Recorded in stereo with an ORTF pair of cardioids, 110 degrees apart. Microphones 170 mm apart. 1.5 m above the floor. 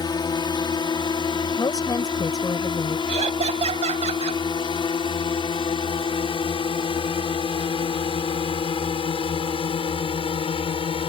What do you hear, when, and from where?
0.0 s a drone: 25° left; by 11.1 s 35° left
1.6 s a woman speaking: 25° left
3.1 s laughter: 40° right